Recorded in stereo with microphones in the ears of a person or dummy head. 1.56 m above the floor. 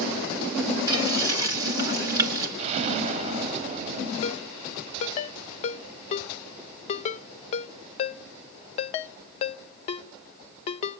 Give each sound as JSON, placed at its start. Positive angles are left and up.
{"t": 0.9, "sound": "frying", "side_deg": -20, "distance_m": 2.5}
{"t": 2.6, "sound": "an explosion", "side_deg": -35, "distance_m": 0.9}
{"t": 4.2, "sound": "a ringtone", "side_deg": 40, "distance_m": 0.5}